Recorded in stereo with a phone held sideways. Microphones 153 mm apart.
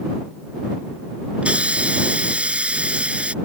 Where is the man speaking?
No man speaking in this recording.